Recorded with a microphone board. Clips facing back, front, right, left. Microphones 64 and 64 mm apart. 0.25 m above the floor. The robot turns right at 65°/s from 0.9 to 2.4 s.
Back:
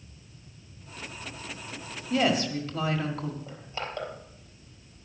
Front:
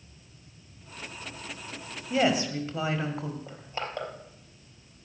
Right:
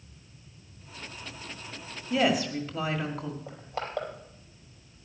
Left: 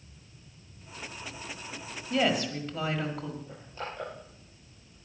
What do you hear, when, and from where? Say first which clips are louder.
2.1 s a woman speaking: even, right 2 dB; 25° right, 1.5 m; by 3.4 s 5° right, 1.5 m
3.5 s crushing: front 1 dB, right 4 dB; 65° right, 4 m